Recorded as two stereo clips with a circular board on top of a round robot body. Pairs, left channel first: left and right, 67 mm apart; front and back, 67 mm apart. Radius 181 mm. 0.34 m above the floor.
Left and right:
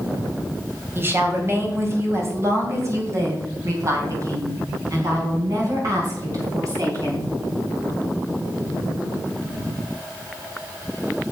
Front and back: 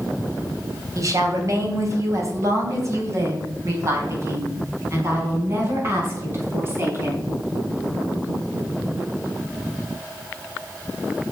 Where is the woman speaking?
145° right, 3 m; by 7.3 s 125° right, 6 m.